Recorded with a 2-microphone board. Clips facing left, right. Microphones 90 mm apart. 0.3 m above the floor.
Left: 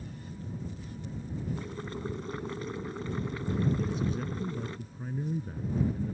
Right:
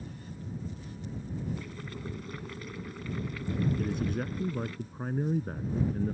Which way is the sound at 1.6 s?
30° left (ahead or behind).